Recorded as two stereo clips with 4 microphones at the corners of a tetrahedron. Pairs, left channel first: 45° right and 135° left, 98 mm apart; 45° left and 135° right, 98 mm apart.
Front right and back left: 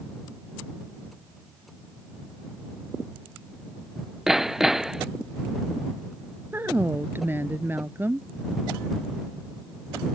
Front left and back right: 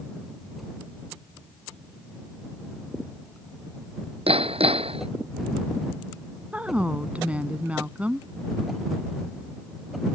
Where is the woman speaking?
165° left.